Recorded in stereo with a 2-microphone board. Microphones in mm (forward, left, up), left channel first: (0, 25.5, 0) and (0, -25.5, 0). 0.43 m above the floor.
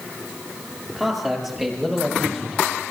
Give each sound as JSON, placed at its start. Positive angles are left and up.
{"t": 0.9, "sound": "a man speaking", "side_deg": -5, "distance_m": 8.5}